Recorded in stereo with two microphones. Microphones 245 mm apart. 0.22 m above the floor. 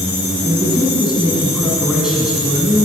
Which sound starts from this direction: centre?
A man speaking, at 0.4 s.